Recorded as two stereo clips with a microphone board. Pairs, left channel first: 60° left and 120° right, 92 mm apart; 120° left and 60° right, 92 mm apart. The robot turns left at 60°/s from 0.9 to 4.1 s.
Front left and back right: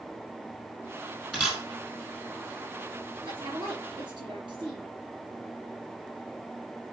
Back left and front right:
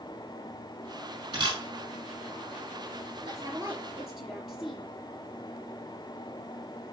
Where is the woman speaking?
95° right, 4 m; by 4.9 s 150° right, 4 m.